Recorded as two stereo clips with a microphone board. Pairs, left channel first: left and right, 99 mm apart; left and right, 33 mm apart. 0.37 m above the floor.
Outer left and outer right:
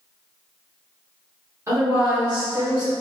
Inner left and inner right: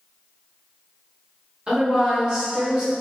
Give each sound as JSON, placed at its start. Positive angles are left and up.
{"t": 1.7, "sound": "a woman speaking", "side_deg": -30, "distance_m": 1.1}